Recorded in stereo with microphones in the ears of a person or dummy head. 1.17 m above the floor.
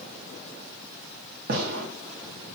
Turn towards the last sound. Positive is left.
turn(degrees=-55)  # may be behind; listen again after turning